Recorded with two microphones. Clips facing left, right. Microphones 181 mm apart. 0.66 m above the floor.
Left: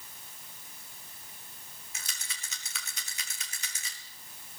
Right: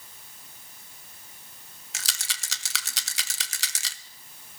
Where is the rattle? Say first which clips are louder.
Right 7 dB; 75° right (ahead or behind), 1.0 m.